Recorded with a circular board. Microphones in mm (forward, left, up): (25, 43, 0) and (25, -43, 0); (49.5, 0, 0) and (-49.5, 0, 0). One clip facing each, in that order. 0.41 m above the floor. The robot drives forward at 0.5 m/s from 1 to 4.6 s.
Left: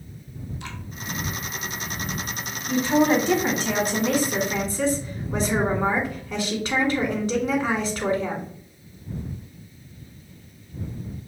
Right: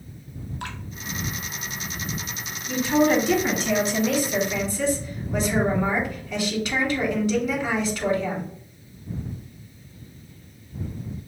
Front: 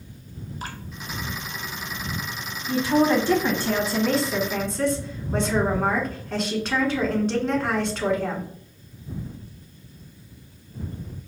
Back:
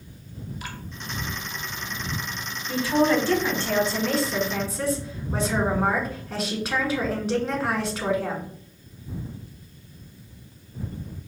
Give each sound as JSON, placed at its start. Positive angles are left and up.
{"t": 0.6, "sound": "dripping", "azimuth_deg": -55, "distance_m": 0.9}
{"t": 2.7, "sound": "a woman speaking", "azimuth_deg": 55, "distance_m": 1.7}